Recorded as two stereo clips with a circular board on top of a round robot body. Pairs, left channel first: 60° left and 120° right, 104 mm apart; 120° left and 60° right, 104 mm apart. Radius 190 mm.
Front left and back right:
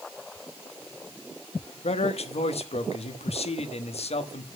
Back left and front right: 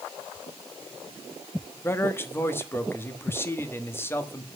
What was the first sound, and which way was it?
A man speaking, 55° left.